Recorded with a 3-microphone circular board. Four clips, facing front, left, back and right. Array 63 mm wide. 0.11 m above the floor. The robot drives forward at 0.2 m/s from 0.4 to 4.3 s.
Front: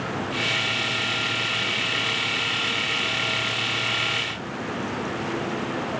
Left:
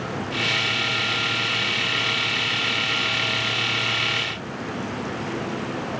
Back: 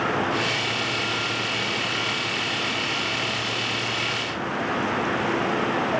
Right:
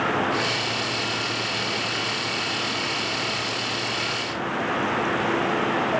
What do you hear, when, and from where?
Only background noise.